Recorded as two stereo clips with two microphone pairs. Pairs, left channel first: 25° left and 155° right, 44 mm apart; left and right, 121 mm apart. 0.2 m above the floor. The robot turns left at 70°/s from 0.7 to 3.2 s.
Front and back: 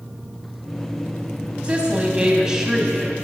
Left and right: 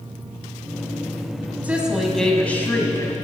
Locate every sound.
1.6 s a woman speaking: 150° right, 1.0 m; by 3.1 s 100° left, 1.0 m